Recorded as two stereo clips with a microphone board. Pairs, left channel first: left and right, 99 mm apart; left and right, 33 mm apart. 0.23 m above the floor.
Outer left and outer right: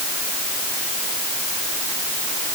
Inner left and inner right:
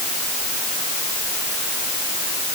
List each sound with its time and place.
Only background noise.